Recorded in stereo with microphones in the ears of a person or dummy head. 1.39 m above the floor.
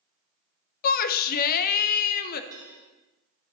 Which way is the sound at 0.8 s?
50° left (ahead or behind).